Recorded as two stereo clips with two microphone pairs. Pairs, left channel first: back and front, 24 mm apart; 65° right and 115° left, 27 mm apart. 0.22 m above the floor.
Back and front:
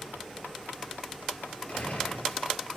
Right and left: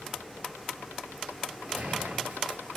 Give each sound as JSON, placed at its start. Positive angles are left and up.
{"t": 1.7, "sound": "a gunshot", "azimuth_deg": 145, "distance_m": 3.0}